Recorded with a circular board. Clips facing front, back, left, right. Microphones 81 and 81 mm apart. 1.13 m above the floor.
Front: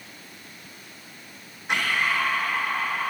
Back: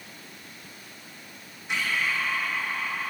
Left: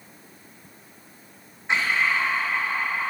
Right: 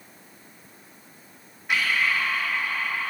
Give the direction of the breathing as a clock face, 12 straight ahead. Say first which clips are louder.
Front 4 dB, left 1 dB; 11 o'clock.